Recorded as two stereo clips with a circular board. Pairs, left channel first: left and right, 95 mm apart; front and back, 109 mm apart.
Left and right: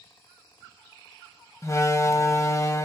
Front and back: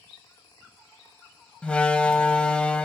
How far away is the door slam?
About 0.8 m.